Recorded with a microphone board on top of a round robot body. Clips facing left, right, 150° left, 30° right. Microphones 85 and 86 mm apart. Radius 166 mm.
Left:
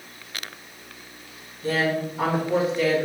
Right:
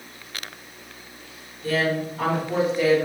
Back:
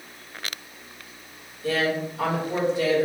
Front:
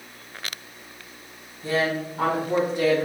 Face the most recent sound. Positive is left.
turn(degrees=-35)